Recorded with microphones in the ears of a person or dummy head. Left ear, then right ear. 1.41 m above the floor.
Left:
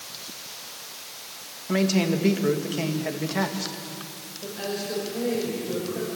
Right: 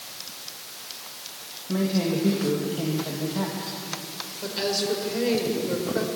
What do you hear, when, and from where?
1.7 s a man speaking: 65° left (ahead or behind), 2 m
4.4 s a woman speaking: 70° right (ahead or behind), 5 m